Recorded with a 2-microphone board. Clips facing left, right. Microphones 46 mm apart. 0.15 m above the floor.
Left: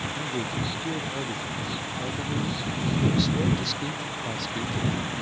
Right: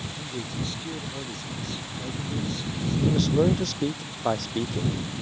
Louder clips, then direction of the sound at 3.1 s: Right 5 dB; 55° right (ahead or behind).